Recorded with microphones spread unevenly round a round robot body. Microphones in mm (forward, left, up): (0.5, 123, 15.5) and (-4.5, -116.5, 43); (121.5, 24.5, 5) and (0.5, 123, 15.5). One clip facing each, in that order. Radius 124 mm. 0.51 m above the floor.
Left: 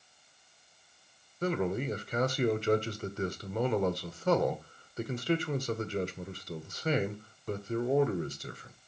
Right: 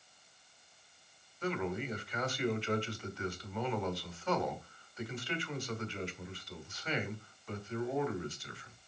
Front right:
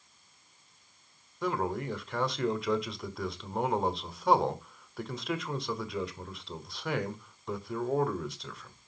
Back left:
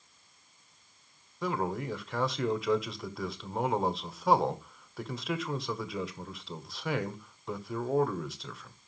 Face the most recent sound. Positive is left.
turn(degrees=50)